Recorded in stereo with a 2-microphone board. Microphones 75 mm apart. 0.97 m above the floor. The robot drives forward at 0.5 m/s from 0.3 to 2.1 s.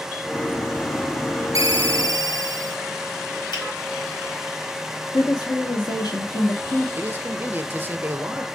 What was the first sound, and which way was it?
A ringtone, 50° right (ahead or behind).